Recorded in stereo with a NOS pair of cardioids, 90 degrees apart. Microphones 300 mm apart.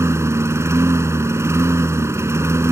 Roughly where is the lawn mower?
Ahead.